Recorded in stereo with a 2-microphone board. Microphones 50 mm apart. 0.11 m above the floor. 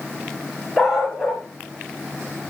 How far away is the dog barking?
About 5.5 m.